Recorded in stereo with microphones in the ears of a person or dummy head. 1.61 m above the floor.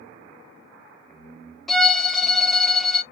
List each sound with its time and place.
1.7 s a violin: centre (ahead or behind), 0.8 m